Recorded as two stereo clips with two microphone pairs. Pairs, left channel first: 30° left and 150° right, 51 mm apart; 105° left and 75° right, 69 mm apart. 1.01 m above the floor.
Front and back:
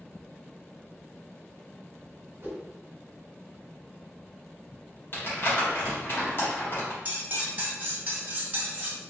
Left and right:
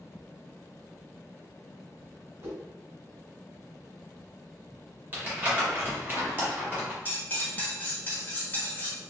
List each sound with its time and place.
2.4 s a whoosh: 115° right, 1.3 m
5.1 s crumpling: 15° right, 1.0 m
7.0 s cutlery clinking: 160° left, 0.7 m